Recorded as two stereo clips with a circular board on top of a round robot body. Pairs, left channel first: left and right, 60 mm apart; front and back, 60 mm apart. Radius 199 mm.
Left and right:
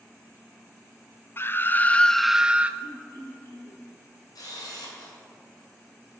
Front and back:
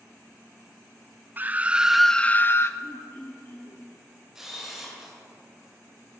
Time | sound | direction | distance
1.4 | a scream | 125° left | 0.7 m
2.8 | throat clearing | 50° left | 0.7 m
4.3 | a camera shutter | 95° left | 2.5 m